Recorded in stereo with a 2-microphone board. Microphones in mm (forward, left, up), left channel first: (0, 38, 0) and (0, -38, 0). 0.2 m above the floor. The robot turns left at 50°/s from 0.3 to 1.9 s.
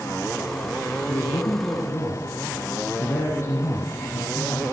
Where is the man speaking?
85° left, 2.5 m; by 4.6 s 45° left, 2.5 m.